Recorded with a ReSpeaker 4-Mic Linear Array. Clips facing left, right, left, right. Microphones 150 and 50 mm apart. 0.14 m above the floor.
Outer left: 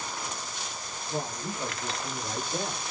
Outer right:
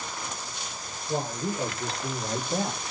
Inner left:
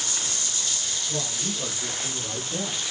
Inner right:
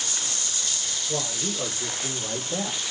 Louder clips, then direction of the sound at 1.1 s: Outer right 5 dB, inner right 3 dB; 50° right (ahead or behind).